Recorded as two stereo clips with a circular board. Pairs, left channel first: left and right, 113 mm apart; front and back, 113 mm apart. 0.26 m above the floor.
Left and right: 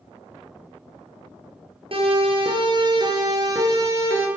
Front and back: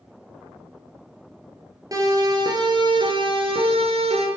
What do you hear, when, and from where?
1.9 s a siren: 125° right, 6 m; by 4.3 s 160° right, 5.5 m